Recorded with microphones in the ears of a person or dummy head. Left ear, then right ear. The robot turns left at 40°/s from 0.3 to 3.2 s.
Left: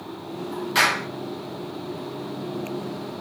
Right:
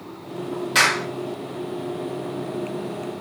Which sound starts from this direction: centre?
A clap, at 0.8 s.